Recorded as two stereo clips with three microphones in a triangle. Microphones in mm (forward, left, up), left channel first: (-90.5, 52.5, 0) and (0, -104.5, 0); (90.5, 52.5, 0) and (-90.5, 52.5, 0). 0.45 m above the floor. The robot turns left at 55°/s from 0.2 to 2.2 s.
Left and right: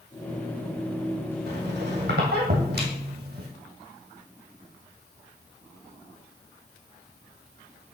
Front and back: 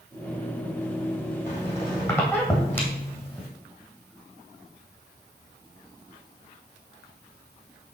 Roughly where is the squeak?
Ahead right.